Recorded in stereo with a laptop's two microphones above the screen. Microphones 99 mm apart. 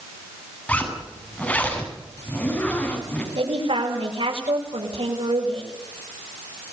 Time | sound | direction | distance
0.7 | a zipper | 15° left (ahead or behind) | 7 m
3.4 | a man speaking | 80° right | 6.5 m